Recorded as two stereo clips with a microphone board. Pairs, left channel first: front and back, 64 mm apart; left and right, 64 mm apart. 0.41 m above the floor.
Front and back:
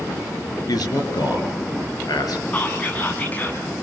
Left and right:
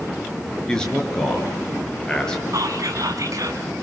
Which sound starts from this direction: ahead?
A man speaking, at 0.7 s.